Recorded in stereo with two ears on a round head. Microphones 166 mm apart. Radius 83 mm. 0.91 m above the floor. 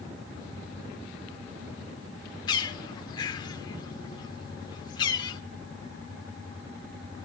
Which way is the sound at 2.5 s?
25° left (ahead or behind).